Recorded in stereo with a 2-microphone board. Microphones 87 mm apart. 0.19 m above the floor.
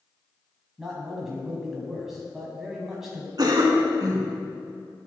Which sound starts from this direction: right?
A cough, at 3.4 s.